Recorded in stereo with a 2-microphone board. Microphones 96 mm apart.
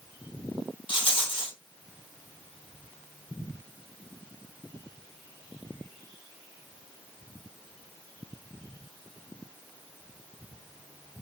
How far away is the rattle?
About 2.5 m.